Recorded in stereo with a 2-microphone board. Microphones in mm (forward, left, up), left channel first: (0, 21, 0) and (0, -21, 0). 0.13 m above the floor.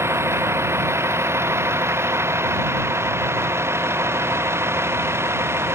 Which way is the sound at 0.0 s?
85° right.